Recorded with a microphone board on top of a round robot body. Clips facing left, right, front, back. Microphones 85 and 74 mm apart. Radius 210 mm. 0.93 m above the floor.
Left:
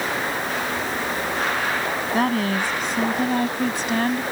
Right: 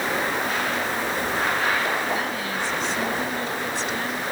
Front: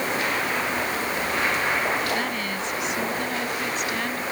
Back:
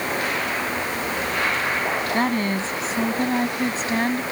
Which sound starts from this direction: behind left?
A woman speaking, at 2.1 s.